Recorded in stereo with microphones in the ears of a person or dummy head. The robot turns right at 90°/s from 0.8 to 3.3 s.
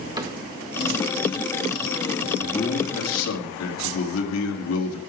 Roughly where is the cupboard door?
Right.